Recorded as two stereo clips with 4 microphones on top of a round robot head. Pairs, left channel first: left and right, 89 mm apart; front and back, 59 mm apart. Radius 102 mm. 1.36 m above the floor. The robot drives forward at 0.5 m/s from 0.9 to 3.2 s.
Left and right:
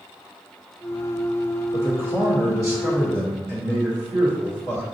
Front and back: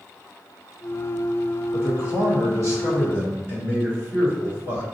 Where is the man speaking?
135° right, 1.6 m; by 4.8 s 150° right, 2 m.